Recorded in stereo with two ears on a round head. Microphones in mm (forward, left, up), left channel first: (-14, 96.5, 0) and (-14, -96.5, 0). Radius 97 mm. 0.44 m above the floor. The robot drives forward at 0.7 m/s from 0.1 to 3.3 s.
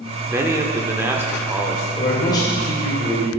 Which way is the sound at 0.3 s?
10° right (ahead or behind).